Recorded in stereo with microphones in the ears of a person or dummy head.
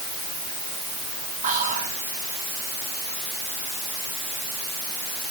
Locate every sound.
1.4 s whispering: 35° right (ahead or behind), 2.0 m